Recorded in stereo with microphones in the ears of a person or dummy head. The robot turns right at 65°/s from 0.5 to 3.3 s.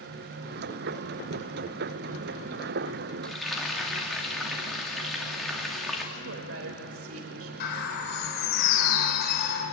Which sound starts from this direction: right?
A woman speaking, at 6.2 s.